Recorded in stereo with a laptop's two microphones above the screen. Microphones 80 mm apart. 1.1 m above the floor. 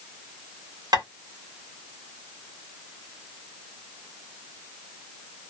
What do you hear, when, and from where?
0.9 s tapping: 55° right (ahead or behind), 1.4 m